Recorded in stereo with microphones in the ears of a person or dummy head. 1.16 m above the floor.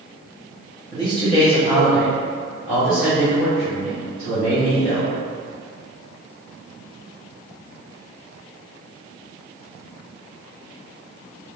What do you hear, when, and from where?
0.9 s a man speaking: 20° left (ahead or behind), 1.2 m; by 5.1 s 70° left (ahead or behind), 2.5 m